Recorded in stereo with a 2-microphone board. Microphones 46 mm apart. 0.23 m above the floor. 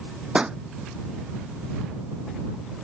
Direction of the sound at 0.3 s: 25° right (ahead or behind).